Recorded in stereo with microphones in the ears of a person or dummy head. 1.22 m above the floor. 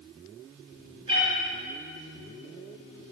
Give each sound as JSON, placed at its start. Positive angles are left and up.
{"t": 1.1, "sound": "a cat meowing", "side_deg": -30, "distance_m": 3.5}